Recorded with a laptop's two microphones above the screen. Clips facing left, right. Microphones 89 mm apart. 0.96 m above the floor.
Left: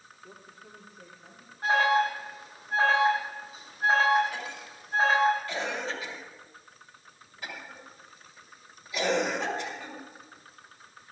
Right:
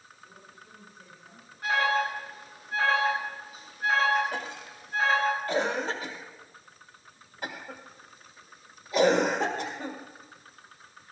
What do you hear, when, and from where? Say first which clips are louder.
0.2 s a woman speaking: left 2 dB; 75° left (ahead or behind), 3 m; by 1.5 s 80° left, 4 m
1.6 s an alarm: left 3 dB; 35° left (ahead or behind), 7 m
4.3 s a cough: right 2 dB; 50° right (ahead or behind), 1.6 m